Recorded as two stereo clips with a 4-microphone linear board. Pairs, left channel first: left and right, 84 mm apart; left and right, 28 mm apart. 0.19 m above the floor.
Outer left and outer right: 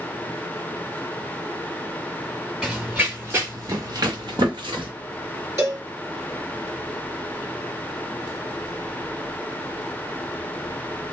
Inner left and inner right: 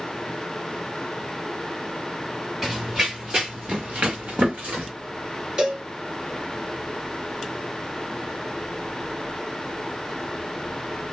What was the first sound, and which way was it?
Running footsteps, 10° right (ahead or behind).